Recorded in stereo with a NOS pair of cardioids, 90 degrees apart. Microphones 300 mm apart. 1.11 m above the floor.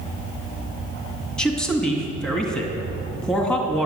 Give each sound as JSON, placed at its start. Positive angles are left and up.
{"t": 1.4, "sound": "a man speaking", "azimuth_deg": 5, "distance_m": 2.0}